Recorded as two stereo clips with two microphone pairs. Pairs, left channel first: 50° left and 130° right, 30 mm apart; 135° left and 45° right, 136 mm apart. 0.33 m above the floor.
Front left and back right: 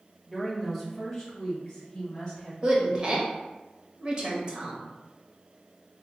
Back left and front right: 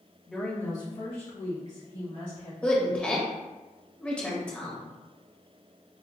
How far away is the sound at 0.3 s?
About 0.9 m.